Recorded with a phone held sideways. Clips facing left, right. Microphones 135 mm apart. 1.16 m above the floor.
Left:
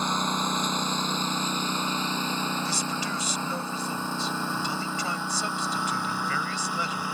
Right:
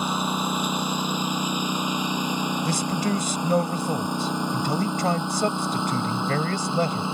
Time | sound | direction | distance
0.0 | a lawn mower | 10° right (ahead or behind) | ?
2.6 | a man speaking | 50° right (ahead or behind) | ?